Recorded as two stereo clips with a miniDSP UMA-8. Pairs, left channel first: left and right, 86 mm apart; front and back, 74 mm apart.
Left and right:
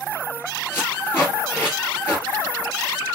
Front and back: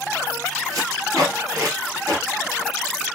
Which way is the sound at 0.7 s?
155° left.